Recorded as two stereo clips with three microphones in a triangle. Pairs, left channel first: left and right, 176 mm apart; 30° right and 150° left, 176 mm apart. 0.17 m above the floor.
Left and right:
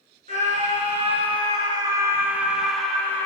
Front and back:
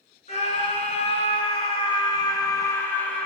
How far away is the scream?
About 2.0 m.